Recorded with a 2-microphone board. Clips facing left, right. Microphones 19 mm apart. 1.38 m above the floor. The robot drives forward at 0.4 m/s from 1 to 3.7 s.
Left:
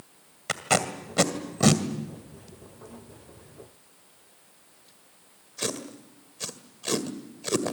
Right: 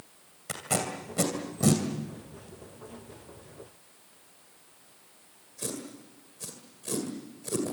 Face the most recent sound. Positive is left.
turn(degrees=60)  # may be behind; listen again after turning